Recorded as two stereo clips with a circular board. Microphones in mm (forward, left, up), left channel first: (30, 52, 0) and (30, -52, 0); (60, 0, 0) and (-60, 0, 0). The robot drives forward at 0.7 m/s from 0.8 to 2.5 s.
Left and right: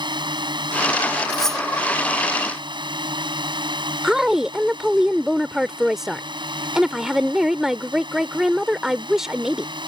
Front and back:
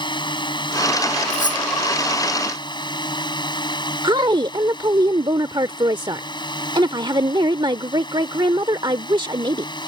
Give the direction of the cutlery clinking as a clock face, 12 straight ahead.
12 o'clock.